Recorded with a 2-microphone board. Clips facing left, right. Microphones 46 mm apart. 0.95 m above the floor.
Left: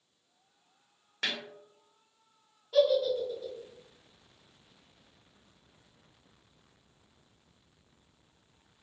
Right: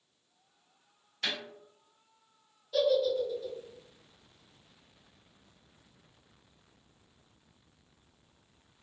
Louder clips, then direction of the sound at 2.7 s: Left 2 dB; 45° left (ahead or behind).